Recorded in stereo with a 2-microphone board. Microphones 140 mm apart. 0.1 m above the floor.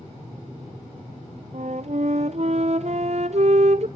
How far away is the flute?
About 0.6 m.